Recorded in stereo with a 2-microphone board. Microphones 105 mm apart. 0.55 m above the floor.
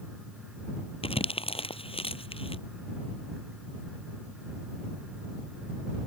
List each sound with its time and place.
1.0 s crumpling: 65° left (ahead or behind)